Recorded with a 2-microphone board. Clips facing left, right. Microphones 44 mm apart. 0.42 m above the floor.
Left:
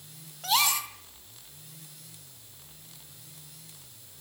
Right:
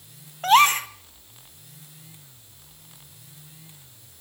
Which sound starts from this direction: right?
A gasp, at 0.4 s.